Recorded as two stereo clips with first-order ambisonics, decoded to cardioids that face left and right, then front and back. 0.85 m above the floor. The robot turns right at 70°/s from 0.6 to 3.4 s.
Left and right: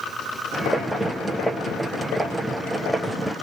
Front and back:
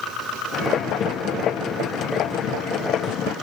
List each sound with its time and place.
Only background noise.